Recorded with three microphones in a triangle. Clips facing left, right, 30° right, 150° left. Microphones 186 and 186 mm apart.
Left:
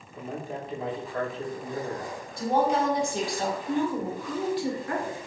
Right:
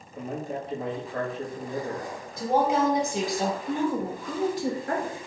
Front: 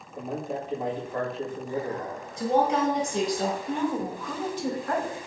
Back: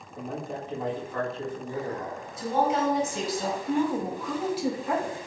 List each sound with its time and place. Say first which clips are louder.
0.1 s a man speaking: right 3 dB, front 3 dB; 100° right, 1.3 m
2.4 s a woman speaking: right 1 dB, front 2 dB; 15° right, 1.8 m
3.7 s a woman speaking: even, back 2 dB; 130° right, 1.1 m